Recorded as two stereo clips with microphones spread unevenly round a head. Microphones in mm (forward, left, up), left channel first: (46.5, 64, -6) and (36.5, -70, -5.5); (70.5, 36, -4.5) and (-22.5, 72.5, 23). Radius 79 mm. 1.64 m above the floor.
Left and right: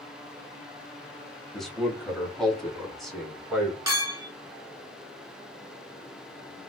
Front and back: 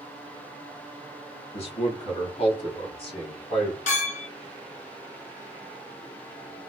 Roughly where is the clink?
Ahead right.